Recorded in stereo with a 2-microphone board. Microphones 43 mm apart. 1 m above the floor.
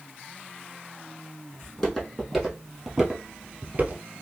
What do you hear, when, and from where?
1.6 s footsteps: 20° left (ahead or behind), 2.5 m; by 4.0 s 35° right (ahead or behind), 1.1 m